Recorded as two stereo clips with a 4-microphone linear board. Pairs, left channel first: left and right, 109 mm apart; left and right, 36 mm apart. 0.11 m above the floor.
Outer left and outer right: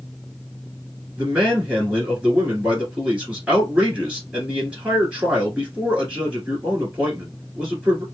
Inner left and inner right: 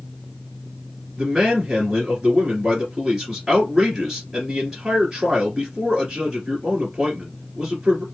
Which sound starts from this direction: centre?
A man speaking, at 1.2 s.